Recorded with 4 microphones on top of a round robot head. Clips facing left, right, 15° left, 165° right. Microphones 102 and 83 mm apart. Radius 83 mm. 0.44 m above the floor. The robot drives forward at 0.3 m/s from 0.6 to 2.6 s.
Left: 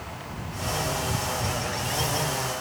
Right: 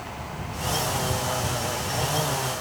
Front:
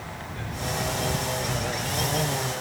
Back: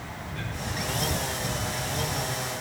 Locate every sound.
Only background noise.